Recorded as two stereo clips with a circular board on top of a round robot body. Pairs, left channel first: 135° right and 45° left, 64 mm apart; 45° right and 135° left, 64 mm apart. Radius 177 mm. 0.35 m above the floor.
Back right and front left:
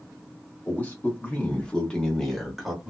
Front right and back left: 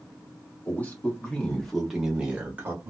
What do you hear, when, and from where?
0.7 s a man speaking: 90° right, 1.4 m; by 2.9 s 125° left, 1.2 m